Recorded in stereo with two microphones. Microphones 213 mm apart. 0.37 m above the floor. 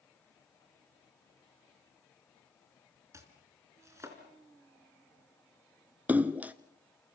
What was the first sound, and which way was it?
Chopping, 15° right (ahead or behind).